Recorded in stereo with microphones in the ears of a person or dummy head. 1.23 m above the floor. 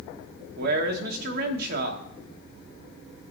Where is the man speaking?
50° right (ahead or behind), 0.9 m.